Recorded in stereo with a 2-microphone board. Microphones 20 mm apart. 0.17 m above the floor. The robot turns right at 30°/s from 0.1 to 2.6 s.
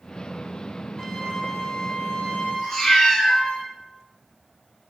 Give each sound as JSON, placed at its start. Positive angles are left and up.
{"t": 1.0, "sound": "a flute", "azimuth_deg": 35, "distance_m": 0.8}
{"t": 2.6, "sound": "a cat meowing", "side_deg": 25, "distance_m": 1.8}